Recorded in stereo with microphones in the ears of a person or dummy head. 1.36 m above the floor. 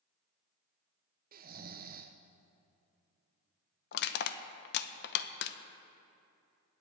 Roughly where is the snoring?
Right.